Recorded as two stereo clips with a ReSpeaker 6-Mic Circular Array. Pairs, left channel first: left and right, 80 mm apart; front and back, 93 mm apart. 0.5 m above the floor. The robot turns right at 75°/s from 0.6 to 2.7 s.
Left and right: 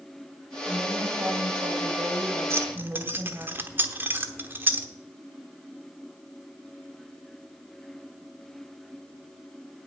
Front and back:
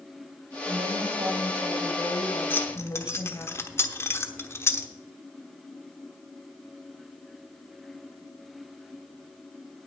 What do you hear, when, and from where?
0.7 s a woman speaking: 175° left, 3 m; by 3.5 s 30° right, 3 m
2.5 s keys jangling: 60° right, 1.0 m; by 4.9 s 45° right, 1.0 m